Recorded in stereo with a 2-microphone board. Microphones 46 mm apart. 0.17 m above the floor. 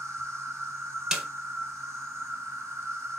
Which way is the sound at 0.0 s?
80° right.